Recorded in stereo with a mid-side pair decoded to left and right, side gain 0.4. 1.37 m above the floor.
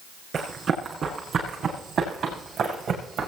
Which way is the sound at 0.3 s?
55° right.